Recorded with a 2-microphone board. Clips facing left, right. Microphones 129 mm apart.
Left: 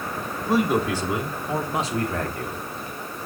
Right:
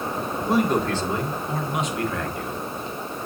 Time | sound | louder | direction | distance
0.5 | a man speaking | even | centre (ahead or behind) | 1.8 m